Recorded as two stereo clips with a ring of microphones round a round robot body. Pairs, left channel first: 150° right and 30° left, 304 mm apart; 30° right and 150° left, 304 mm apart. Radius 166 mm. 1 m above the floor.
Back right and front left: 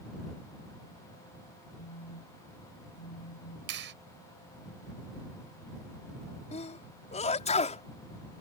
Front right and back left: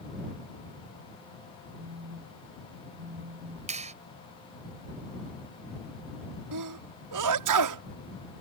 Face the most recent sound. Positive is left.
turn(degrees=140)